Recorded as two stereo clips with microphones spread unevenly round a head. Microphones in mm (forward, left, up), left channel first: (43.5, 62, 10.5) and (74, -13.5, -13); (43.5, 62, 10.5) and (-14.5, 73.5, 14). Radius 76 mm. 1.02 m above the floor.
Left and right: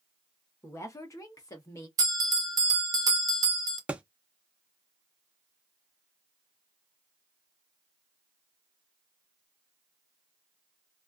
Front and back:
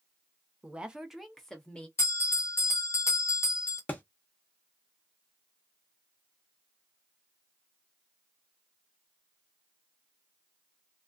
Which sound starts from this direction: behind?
A woman speaking, at 0.6 s.